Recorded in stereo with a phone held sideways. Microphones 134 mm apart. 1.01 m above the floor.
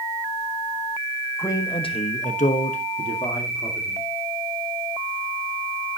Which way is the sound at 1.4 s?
20° left (ahead or behind).